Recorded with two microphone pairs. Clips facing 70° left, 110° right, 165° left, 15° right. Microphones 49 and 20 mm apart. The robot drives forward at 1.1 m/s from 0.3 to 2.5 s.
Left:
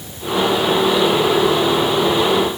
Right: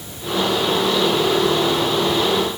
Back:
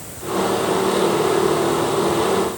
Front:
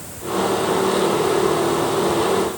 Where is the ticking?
No ticking in this recording.